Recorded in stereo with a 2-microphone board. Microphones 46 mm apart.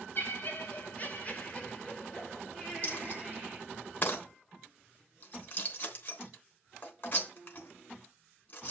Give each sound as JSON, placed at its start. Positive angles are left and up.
{"t": 0.1, "sound": "laughter", "side_deg": 40, "distance_m": 2.5}
{"t": 2.8, "sound": "a dropped coin", "side_deg": 45, "distance_m": 3.0}